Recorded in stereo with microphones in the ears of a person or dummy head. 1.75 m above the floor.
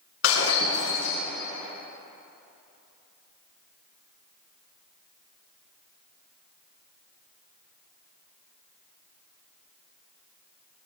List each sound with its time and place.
0.2 s breaking glass: 70° left (ahead or behind), 5 m